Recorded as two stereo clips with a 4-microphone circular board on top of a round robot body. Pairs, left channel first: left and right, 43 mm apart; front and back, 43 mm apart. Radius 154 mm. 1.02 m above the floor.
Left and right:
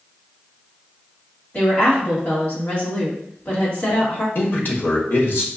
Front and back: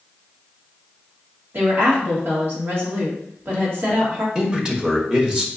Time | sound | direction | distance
1.5 | a woman speaking | 145° left | 1.6 m
4.3 | a man speaking | 115° left | 1.1 m